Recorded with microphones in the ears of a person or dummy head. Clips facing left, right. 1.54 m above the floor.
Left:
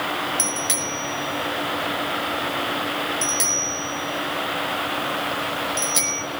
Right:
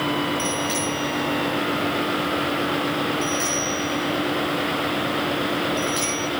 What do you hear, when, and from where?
0.4 s a bicycle bell: 65° left (ahead or behind), 5.5 m